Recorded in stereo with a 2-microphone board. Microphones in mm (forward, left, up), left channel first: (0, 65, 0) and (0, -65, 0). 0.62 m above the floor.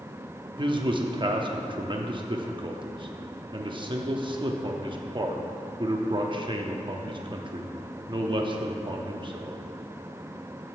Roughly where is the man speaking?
Right.